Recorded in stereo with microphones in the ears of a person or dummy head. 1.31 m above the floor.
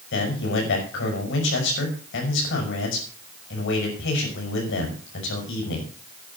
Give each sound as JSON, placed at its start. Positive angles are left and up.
{"t": 0.1, "sound": "a man speaking", "side_deg": 65, "distance_m": 5.5}